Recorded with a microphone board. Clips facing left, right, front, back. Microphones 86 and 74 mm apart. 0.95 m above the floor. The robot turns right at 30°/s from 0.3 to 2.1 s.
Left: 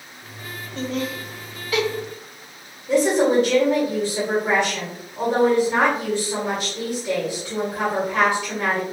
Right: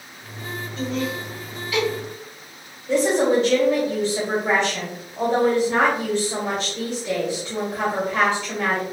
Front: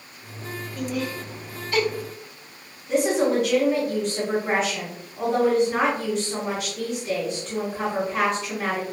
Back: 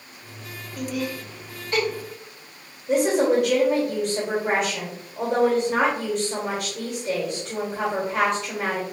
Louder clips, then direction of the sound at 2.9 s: Left 1 dB, back 1 dB; 170° left.